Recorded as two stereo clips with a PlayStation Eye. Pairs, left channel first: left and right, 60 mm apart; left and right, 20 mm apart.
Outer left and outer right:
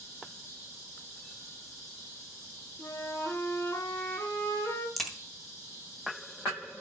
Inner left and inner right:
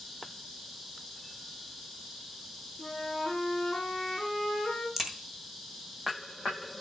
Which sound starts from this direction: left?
A flute, at 2.8 s.